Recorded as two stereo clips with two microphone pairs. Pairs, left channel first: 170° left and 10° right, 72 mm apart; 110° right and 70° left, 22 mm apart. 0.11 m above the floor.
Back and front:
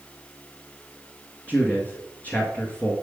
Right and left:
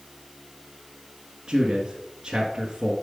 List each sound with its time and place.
1.5 s a man speaking: 120° left, 1.5 m